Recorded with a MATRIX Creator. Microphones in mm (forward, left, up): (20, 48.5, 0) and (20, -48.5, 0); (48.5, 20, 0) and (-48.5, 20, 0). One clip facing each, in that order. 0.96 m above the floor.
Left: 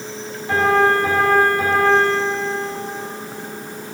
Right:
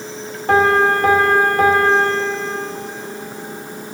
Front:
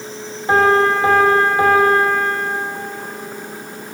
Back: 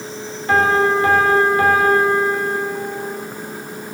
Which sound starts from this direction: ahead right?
A piano, at 0.5 s.